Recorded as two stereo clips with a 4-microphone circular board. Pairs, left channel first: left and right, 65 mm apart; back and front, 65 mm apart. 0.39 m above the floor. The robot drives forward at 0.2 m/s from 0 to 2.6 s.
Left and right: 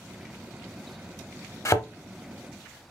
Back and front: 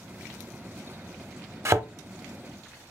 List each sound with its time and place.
1.6 s a thud: 45° left, 0.6 m; by 1.9 s 50° left, 0.6 m